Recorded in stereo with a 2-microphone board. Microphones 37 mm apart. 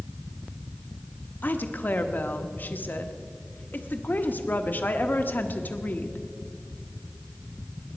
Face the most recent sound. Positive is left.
turn(degrees=55)  # may be behind; listen again after turning